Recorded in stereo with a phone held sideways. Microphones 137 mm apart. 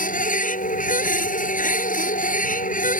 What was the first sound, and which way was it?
A machine running, 85° left.